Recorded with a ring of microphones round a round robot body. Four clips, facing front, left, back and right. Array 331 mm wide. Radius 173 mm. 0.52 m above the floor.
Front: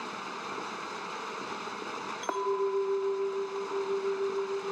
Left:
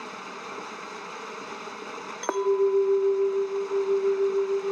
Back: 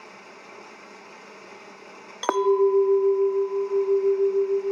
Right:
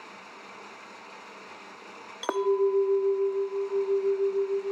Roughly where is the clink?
Behind.